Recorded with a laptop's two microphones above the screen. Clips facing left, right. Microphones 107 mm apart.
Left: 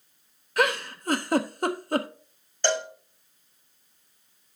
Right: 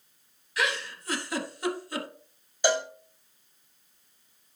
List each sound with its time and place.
0.6 s a giggle: 50° left (ahead or behind), 0.8 m
2.6 s a cowbell: 10° right (ahead or behind), 1.7 m